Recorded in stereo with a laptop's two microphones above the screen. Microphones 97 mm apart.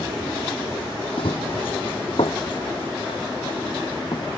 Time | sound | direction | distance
1.2 | running footsteps | 65° left (ahead or behind) | ?